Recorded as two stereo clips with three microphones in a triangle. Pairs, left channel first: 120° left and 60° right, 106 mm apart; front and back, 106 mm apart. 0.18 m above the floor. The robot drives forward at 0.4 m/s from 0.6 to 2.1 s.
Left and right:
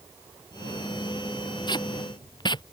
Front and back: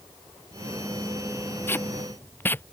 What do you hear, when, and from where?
1.7 s tape being pulled: 70° left